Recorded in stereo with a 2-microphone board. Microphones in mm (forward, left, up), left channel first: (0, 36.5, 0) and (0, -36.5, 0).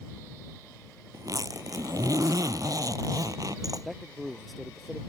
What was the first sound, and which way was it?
A zipper, 55° right (ahead or behind).